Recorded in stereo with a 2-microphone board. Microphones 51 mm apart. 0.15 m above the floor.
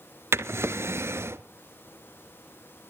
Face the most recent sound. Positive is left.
turn(degrees=-60)  # may be behind; listen again after turning